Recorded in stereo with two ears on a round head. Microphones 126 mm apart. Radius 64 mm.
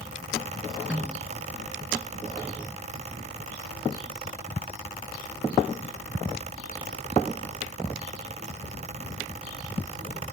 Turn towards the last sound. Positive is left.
turn(degrees=-5)  # may be behind; listen again after turning